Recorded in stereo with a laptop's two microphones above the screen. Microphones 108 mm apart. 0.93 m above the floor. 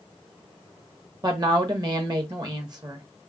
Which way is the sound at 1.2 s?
35° right (ahead or behind).